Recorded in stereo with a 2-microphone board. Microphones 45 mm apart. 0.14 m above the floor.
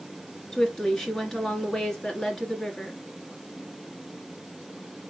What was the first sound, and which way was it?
A woman speaking, 15° left (ahead or behind).